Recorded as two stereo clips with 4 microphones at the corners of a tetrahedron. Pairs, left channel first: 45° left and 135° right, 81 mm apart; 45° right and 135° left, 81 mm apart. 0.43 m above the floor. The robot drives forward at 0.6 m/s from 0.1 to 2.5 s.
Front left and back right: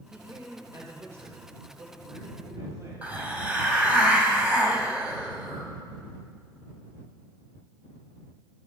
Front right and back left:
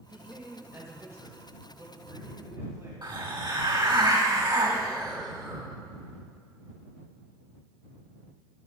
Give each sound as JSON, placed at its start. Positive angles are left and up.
{"t": 0.1, "sound": "a man speaking", "azimuth_deg": 180, "distance_m": 1.0}
{"t": 3.0, "sound": "a hiss", "azimuth_deg": 155, "distance_m": 2.0}